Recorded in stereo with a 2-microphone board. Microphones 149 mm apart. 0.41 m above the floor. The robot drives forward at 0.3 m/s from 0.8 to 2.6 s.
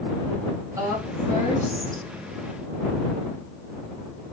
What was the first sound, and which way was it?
A woman speaking, 20° right (ahead or behind).